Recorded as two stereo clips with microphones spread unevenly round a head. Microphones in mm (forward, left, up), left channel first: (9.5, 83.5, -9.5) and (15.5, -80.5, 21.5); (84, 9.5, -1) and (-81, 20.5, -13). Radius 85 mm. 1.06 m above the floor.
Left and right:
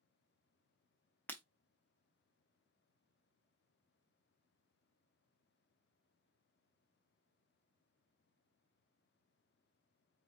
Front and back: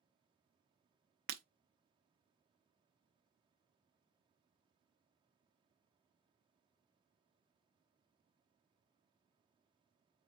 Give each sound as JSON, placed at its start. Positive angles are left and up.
{"t": 1.3, "sound": "breaking glass", "azimuth_deg": 180, "distance_m": 0.7}